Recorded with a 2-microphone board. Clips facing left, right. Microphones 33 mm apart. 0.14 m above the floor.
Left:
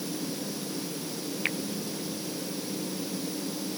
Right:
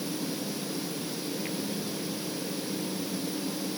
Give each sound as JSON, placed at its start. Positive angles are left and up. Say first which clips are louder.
{"t": 1.4, "sound": "a finger snap", "louder": "left 5 dB", "side_deg": 70}